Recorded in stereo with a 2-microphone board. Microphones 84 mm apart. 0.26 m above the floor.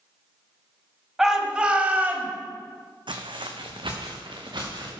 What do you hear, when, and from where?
1.2 s a shout: 5° right (ahead or behind), 1.5 m; by 2.3 s 25° right (ahead or behind), 1.4 m
3.1 s footsteps: 70° right (ahead or behind), 1.1 m; by 5.0 s 60° right (ahead or behind), 3 m